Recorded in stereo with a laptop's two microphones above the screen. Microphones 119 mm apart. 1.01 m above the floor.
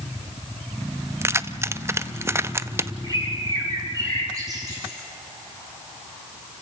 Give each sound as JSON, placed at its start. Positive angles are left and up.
{"t": 1.2, "sound": "keys jangling", "side_deg": -20, "distance_m": 0.6}
{"t": 3.0, "sound": "a bird", "side_deg": -30, "distance_m": 8.0}